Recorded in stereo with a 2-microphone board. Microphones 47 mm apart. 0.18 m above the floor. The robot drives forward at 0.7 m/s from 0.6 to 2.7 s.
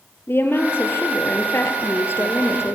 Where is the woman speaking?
55° left (ahead or behind), 4 m; by 2.8 s 70° left (ahead or behind), 3.5 m.